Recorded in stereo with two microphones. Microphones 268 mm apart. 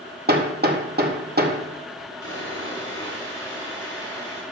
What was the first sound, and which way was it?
Hammering, 35° right (ahead or behind).